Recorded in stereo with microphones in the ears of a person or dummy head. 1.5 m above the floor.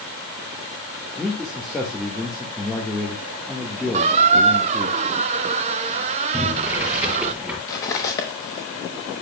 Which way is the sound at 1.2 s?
Centre (ahead or behind).